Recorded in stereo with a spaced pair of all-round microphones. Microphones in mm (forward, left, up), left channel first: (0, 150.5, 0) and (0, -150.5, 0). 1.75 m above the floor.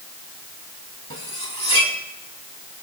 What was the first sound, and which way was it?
Cutlery clinking, 75° right (ahead or behind).